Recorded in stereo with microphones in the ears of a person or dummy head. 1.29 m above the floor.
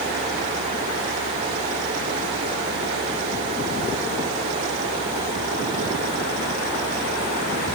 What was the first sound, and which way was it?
Only background noise.